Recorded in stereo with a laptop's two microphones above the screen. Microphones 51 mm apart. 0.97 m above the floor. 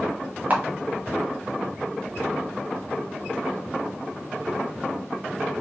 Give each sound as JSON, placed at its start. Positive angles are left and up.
{"t": 0.5, "sound": "a camera shutter", "side_deg": -30, "distance_m": 0.7}